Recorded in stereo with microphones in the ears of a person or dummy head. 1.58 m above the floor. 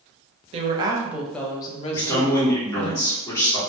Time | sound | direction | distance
0.5 | a woman speaking | 35° right (ahead or behind) | 0.7 m
1.9 | a man speaking | 15° left (ahead or behind) | 1.5 m